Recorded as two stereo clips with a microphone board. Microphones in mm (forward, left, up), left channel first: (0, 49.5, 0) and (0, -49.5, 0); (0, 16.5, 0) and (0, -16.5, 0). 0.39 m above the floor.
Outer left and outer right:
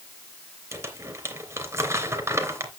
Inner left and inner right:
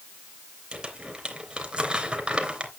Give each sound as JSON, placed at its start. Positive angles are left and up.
{"t": 0.7, "sound": "crumpling", "side_deg": -25, "distance_m": 3.0}